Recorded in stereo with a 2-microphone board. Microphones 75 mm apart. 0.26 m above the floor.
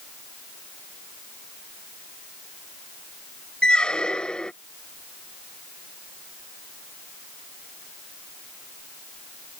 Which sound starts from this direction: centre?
A squeak, at 3.6 s.